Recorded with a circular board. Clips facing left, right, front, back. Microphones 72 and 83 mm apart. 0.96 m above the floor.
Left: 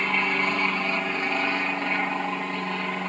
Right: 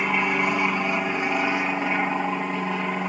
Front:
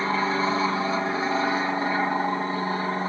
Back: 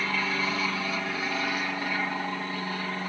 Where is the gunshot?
No gunshot in this recording.